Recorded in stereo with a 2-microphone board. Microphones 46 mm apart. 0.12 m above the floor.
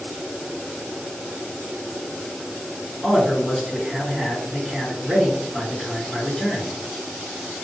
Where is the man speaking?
5° left (ahead or behind), 1.8 m.